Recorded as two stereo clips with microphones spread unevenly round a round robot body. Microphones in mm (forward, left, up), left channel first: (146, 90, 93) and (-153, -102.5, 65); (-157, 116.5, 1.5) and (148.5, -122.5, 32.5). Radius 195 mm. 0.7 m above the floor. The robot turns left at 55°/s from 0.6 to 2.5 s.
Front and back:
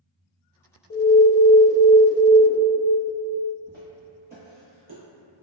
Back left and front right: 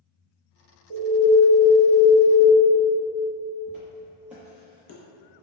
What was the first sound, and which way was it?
An alarm, 15° left.